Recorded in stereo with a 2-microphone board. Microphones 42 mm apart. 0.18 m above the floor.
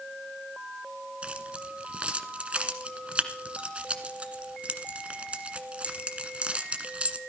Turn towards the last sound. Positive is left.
turn(degrees=-30)  # may be behind; listen again after turning